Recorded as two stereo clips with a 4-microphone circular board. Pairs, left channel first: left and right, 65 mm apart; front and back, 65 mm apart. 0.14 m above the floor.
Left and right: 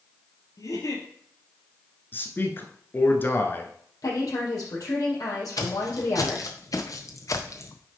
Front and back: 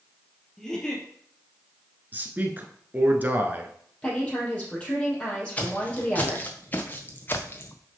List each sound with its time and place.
0.6 s a giggle: 80° left, 2.5 m
2.1 s a man speaking: 130° left, 1.4 m
4.0 s a woman speaking: 70° left, 4 m
5.6 s footsteps: 65° left, 2 m; by 7.8 s 50° left, 1.1 m